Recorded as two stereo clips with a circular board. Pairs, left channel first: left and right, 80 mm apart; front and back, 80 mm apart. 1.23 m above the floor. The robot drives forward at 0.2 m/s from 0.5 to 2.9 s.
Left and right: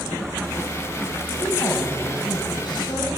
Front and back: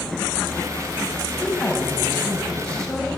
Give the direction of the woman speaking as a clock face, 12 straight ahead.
10 o'clock.